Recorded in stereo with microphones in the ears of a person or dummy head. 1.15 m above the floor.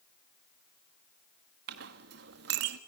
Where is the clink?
65° right (ahead or behind), 1.2 m.